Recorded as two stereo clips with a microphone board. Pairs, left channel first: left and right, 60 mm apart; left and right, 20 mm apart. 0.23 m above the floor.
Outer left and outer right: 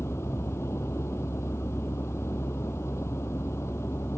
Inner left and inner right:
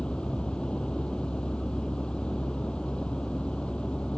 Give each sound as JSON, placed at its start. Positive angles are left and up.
{"t": 0.0, "sound": "a vehicle", "side_deg": 50}